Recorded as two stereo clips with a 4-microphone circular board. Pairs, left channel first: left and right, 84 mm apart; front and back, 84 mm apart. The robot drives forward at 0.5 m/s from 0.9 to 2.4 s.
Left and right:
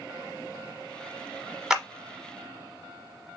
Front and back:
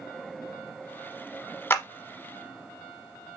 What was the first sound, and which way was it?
A clap, 15° right.